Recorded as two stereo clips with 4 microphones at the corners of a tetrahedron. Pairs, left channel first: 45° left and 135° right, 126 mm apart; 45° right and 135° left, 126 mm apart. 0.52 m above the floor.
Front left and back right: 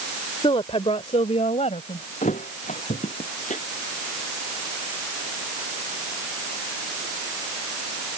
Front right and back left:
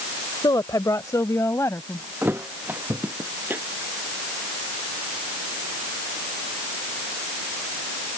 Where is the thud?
60° left.